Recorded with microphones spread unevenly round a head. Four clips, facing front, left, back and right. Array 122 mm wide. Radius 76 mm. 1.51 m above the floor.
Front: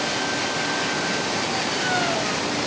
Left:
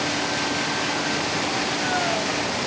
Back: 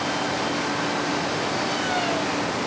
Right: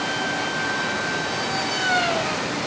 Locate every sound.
Only background noise.